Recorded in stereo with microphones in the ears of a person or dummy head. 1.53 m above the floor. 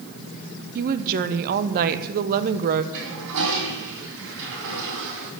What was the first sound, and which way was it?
A woman speaking, 40° right (ahead or behind).